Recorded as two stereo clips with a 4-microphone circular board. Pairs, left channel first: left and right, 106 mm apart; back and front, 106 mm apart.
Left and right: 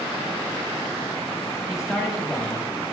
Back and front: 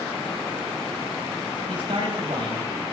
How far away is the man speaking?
About 5 m.